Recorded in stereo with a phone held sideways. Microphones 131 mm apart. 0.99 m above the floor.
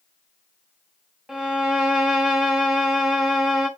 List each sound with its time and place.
1.3 s a violin: 5° right (ahead or behind), 1.1 m